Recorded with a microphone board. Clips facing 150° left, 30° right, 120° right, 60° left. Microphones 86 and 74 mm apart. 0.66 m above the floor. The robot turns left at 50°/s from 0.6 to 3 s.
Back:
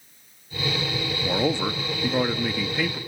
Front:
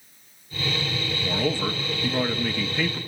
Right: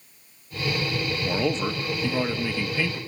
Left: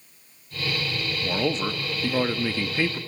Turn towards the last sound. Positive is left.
turn(degrees=70)